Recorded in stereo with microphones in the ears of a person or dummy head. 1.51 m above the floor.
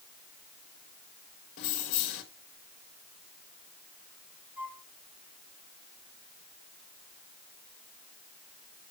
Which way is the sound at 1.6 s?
55° left (ahead or behind).